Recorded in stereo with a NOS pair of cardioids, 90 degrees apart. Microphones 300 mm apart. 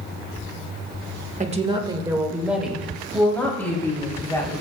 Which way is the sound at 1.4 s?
25° right.